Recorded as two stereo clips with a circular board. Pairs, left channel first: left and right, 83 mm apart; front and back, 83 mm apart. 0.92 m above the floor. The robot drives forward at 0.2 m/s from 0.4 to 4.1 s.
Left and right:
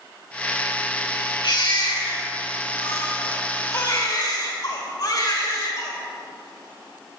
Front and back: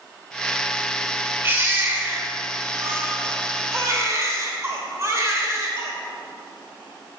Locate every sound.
1.4 s a baby crying: 115° left, 2 m; by 5.9 s 125° left, 2.5 m